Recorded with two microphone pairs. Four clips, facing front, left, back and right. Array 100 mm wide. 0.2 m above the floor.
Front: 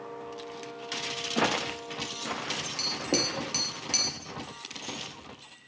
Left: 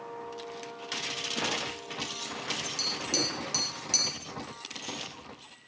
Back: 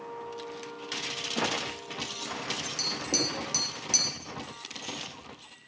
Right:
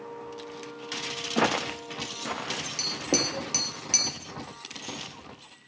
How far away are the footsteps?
About 1.2 m.